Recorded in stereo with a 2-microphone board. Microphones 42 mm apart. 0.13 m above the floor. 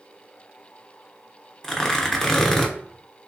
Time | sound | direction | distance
1.6 | tearing paper | 10° left (ahead or behind) | 0.7 m